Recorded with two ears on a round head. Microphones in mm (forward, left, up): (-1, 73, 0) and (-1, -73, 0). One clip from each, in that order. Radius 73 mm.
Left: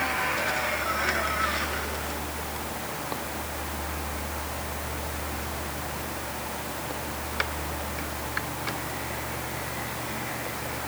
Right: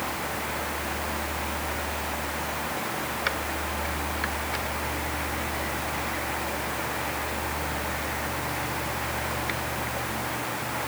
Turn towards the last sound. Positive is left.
No sound to turn to.